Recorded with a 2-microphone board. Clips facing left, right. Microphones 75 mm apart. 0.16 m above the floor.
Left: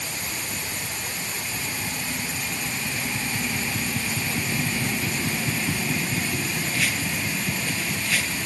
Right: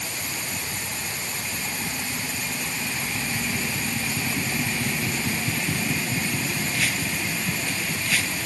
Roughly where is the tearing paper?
No tearing paper in this recording.